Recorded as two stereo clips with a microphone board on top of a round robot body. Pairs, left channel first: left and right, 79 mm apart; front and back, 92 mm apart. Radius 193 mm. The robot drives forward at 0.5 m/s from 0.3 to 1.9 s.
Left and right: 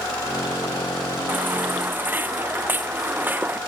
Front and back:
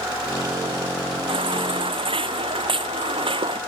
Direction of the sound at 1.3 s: 160° right.